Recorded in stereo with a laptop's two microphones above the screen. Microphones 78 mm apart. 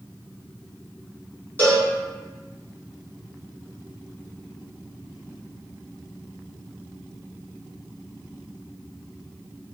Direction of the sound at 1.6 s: 25° left (ahead or behind).